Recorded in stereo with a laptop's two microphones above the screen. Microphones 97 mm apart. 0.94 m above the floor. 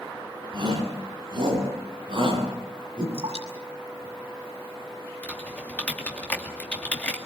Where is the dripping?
85° right, 6.5 m.